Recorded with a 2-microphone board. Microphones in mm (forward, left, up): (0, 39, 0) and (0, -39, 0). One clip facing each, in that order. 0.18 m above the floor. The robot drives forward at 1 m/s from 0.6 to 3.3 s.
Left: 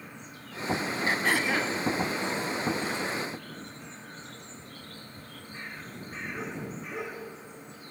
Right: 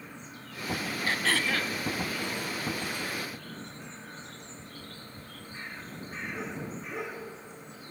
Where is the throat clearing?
20° left (ahead or behind), 0.7 m; by 1.8 s 15° left (ahead or behind), 0.9 m.